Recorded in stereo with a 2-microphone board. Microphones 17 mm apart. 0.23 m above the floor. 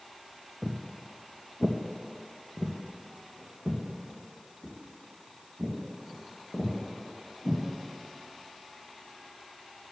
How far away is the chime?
No chime in this recording.